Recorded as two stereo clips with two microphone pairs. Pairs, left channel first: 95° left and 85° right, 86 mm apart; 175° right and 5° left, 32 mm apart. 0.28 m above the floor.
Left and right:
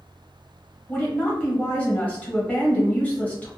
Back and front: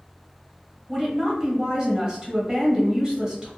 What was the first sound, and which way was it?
A woman speaking, 40° left.